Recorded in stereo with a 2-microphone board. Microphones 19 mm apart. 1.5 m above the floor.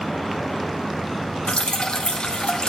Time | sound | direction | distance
1.5 | dripping | 55° left (ahead or behind) | 0.8 m